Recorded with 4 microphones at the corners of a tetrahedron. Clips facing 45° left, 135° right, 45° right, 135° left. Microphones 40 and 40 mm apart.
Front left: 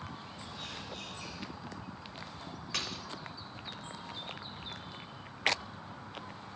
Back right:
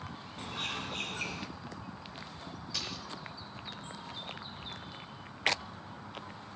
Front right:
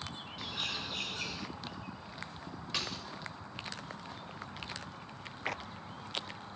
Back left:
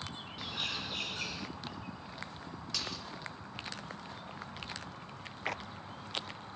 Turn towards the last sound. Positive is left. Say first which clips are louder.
# front left 3 dB, front right 2 dB
turn(degrees=20)